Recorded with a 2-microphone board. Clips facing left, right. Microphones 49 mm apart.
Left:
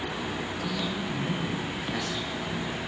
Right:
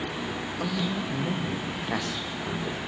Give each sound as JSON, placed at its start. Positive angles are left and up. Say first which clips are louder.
{"t": 0.6, "sound": "a man speaking", "louder": "right 4 dB", "side_deg": -75, "distance_m": 5.0}